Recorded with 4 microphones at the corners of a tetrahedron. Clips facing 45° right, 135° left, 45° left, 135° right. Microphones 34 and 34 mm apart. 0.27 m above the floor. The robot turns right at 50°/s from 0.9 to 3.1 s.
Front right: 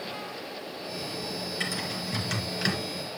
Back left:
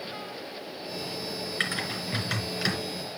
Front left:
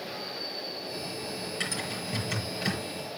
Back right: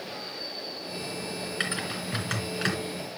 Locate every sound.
1.6 s typing on a keyboard: 175° left, 3.5 m; by 2.8 s 130° right, 3.5 m